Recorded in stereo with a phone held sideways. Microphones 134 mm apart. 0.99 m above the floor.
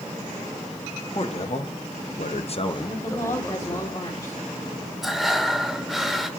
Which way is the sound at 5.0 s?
Centre (ahead or behind).